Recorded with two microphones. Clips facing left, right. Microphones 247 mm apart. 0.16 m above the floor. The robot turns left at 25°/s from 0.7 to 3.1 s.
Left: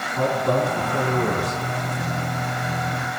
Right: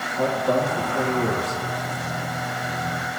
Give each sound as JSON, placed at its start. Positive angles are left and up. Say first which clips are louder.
{"t": 0.2, "sound": "a man speaking", "louder": "even", "side_deg": 65, "distance_m": 9.0}